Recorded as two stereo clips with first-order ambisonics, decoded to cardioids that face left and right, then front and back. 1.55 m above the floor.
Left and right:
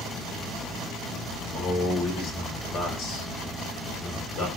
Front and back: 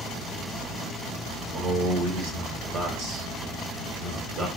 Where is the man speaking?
135° left, 1.3 m.